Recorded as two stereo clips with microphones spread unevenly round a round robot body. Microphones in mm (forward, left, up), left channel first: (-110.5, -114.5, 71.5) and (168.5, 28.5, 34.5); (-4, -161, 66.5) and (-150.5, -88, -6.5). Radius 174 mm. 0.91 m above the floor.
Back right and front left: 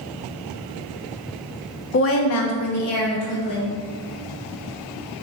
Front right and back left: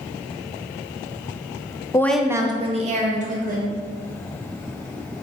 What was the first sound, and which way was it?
A woman speaking, 125° right.